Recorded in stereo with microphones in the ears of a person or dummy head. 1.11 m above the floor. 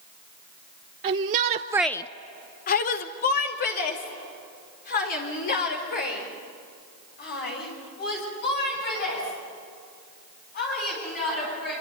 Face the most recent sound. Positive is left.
turn(degrees=45)  # may be behind; listen again after turning